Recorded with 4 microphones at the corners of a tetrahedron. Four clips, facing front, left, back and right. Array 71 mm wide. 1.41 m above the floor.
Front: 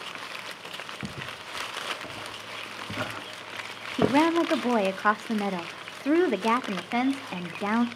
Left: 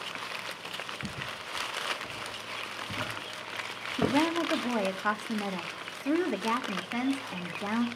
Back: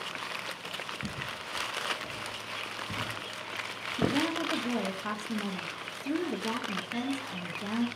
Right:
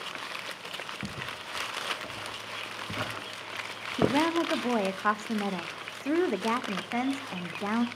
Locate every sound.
1.0 s footsteps: 25° right, 4 m; by 4.2 s 45° right, 2 m
4.0 s a woman speaking: 10° right, 1.4 m